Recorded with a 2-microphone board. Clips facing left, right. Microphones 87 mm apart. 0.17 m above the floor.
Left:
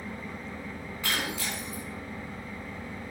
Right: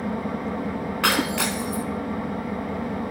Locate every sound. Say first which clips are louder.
0.0 s an engine running: right 12 dB; 75° right (ahead or behind), 1.9 m
1.0 s breaking glass: right 9 dB; 80° right, 2.5 m